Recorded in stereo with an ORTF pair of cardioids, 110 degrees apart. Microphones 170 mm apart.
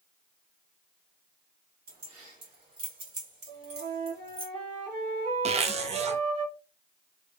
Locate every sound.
1.9 s keys jangling: 60° right, 3 m; by 4.5 s 30° right, 2.0 m
3.5 s a flute: 45° right, 2 m
5.5 s a zipper: 40° right, 0.6 m